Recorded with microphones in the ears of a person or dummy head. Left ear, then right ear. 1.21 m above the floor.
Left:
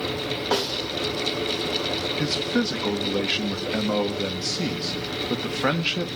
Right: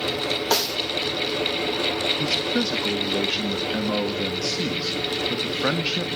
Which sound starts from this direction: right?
A snare drum, at 0.5 s.